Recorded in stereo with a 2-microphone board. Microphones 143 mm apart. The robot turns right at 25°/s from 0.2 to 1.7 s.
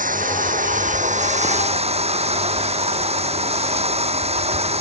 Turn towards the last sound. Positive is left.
turn(degrees=-50)